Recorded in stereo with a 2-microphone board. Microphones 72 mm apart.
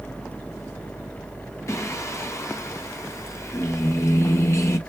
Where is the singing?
40° left (ahead or behind), 1.0 m.